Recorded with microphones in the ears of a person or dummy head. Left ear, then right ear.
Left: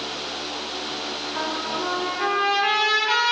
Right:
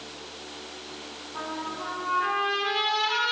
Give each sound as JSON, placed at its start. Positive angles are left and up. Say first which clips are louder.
{"t": 1.3, "sound": "a trumpet", "louder": "left 5 dB", "side_deg": 70, "distance_m": 4.0}